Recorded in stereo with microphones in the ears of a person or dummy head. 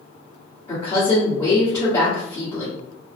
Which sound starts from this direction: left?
A woman speaking, at 0.7 s.